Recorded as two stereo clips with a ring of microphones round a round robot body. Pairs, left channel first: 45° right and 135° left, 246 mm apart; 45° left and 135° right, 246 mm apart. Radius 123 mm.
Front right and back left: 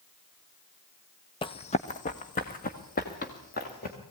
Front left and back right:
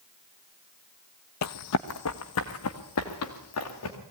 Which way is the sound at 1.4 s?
25° left.